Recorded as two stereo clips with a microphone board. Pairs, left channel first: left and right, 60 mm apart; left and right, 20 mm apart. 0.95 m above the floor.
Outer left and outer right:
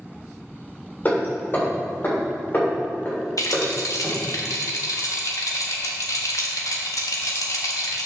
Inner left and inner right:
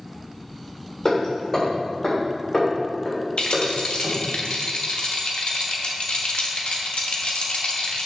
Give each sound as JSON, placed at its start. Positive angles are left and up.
{"t": 1.1, "sound": "hammering", "side_deg": 30, "distance_m": 3.5}
{"t": 3.4, "sound": "a rattle", "side_deg": 70, "distance_m": 1.4}